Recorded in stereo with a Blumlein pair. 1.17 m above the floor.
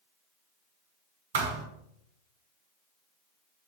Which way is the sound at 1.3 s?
50° right.